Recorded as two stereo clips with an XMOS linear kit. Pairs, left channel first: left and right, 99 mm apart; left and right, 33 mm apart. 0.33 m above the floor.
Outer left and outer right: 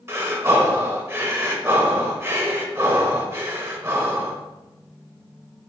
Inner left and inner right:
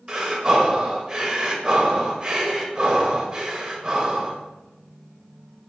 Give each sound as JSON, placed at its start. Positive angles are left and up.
{"t": 0.1, "sound": "breathing", "side_deg": -25, "distance_m": 0.8}